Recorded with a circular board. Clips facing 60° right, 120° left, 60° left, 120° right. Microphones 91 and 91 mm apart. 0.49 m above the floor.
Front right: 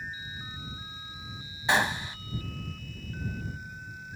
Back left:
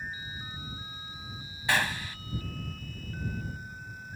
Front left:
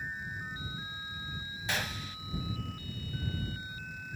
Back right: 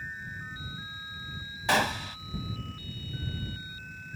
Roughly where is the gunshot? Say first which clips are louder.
Front right 3 dB, back right 11 dB; behind right.